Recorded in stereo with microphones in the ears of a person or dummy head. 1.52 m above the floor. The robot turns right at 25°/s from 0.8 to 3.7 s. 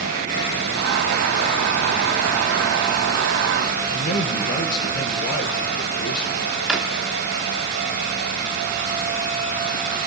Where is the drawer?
5° right (ahead or behind), 1.1 m.